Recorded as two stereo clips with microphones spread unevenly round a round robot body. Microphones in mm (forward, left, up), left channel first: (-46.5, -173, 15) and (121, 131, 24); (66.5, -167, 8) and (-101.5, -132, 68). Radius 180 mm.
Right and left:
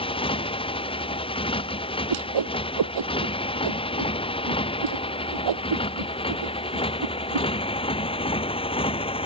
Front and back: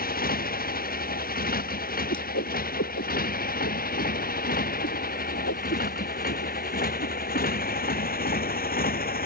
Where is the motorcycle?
45° right.